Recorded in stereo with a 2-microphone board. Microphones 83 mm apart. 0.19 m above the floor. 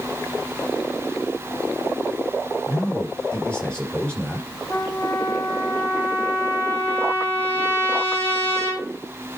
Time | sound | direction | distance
2.7 | a man speaking | 10° left (ahead or behind) | 4 m
4.7 | a trumpet | 20° left (ahead or behind) | 5 m